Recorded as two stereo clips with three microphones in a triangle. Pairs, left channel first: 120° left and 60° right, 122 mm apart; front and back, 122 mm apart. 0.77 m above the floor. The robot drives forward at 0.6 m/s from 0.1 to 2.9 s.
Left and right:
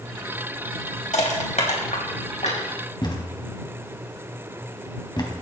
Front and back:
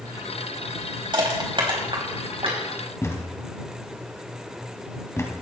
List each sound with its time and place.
1.1 s crushing: 130° left, 3.5 m; by 2.6 s 140° left, 4 m
3.0 s a thud: 65° left, 2.5 m